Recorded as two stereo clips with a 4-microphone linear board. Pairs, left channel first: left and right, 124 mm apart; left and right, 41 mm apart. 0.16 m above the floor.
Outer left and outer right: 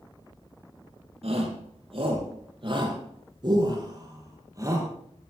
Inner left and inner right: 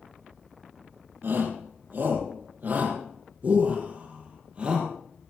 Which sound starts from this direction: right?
A shout, at 1.2 s.